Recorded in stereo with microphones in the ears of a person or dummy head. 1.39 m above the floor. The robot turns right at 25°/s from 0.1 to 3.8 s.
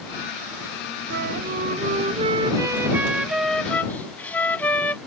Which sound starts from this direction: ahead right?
A flute, at 1.1 s.